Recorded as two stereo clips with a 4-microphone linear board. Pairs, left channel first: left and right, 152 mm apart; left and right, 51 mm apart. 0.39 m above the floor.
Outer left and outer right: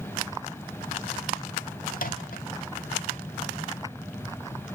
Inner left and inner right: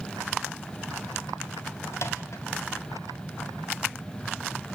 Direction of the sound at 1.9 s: 65° left (ahead or behind).